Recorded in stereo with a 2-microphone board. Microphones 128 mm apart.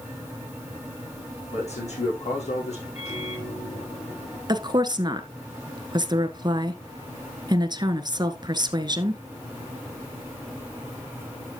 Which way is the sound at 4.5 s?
35° right (ahead or behind).